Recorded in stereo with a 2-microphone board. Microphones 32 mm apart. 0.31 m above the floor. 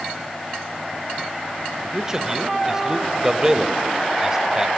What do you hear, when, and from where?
1.9 s a man speaking: 20° right (ahead or behind), 1.0 m